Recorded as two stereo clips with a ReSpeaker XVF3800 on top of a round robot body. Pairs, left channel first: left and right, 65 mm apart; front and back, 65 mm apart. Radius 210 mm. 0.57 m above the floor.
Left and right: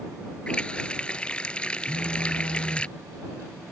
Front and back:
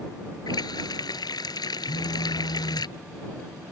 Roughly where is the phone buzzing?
Ahead.